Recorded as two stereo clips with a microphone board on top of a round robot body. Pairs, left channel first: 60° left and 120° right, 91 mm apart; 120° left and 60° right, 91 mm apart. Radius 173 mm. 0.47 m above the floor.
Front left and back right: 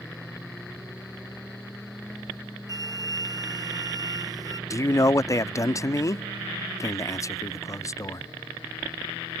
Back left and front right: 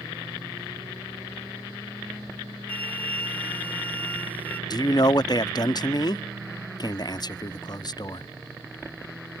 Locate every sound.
2.7 s a flute: 170° right
4.7 s a man speaking: 100° left